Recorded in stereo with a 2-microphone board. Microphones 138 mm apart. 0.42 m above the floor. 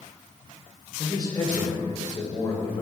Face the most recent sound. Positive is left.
turn(degrees=25)  # may be behind; listen again after turning